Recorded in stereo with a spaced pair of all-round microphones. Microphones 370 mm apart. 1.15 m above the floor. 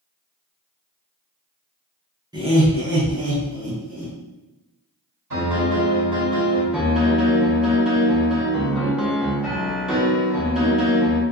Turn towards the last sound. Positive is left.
turn(degrees=0)  # may be behind; listen again after turning